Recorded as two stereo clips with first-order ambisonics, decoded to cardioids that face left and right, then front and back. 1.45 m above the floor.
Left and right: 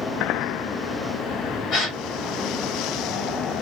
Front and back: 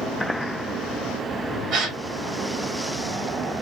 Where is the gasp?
145° left, 1.9 m.